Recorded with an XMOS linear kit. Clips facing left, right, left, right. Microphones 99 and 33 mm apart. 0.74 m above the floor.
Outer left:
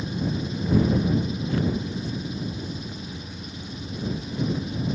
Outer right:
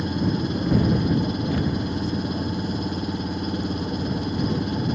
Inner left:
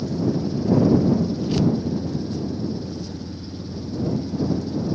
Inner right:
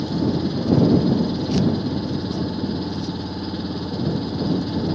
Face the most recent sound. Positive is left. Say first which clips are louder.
# outer right 4 dB, inner right 2 dB
turn(degrees=-60)  # may be behind; listen again after turning